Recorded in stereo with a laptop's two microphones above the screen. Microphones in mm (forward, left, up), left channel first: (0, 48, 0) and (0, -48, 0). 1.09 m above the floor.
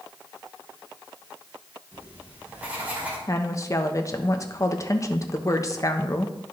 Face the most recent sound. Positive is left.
turn(degrees=35)  # may be behind; listen again after turning